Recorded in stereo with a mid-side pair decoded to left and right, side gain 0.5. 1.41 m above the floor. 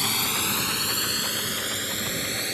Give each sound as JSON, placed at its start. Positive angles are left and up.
{"t": 0.0, "sound": "a drone", "azimuth_deg": 10}